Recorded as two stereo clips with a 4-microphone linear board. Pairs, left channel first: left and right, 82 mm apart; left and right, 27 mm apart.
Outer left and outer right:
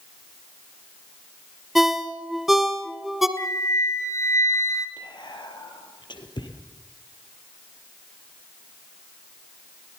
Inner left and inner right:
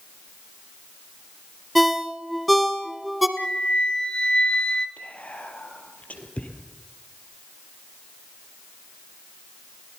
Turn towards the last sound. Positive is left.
turn(degrees=70)  # may be behind; listen again after turning